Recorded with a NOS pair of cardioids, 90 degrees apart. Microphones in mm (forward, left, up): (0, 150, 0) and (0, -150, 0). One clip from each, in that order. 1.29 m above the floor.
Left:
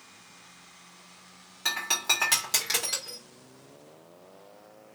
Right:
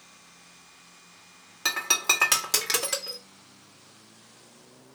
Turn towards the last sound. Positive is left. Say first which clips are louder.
# right 3 dB
turn(degrees=-35)